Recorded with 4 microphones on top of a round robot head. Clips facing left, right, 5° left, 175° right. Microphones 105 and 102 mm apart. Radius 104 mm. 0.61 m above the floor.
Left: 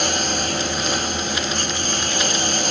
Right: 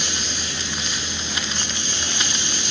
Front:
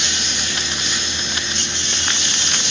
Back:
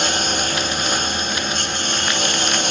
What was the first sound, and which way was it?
A lawn mower, 140° left.